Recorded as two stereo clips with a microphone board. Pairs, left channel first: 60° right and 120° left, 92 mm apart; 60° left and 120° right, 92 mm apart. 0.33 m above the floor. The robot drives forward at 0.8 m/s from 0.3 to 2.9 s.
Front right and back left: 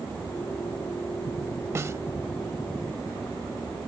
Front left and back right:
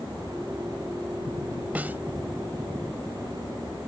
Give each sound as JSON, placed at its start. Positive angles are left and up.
{"t": 1.8, "sound": "a snare drum", "azimuth_deg": 170}